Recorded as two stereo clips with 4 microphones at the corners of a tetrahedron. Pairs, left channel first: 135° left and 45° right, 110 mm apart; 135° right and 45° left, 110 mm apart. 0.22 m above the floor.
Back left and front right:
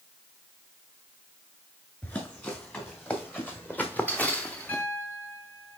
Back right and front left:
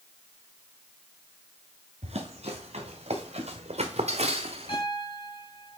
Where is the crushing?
No crushing in this recording.